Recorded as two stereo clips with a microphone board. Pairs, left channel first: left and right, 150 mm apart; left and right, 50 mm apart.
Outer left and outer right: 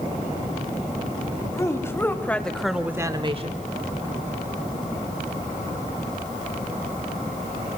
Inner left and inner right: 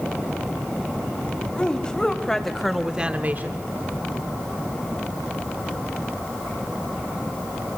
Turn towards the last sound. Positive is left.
turn(degrees=-45)  # may be behind; listen again after turning